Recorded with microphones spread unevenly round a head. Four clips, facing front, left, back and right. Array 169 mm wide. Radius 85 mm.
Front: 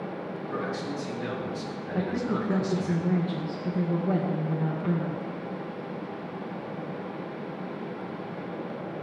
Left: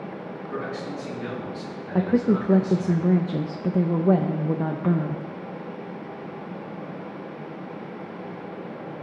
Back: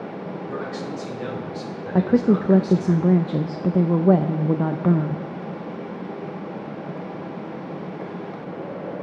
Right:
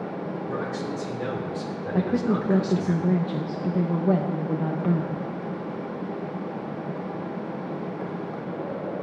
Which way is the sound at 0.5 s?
130° right.